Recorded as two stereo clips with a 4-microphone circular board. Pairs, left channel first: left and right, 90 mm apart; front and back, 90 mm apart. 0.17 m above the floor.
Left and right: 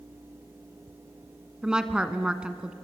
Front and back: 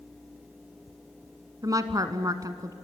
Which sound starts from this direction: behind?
A woman speaking, at 1.6 s.